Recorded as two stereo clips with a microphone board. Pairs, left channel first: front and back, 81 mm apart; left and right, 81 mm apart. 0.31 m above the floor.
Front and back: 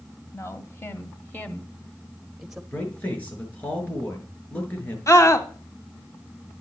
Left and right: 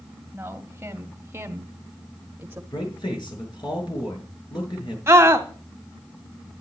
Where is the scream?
40° right, 1.7 m.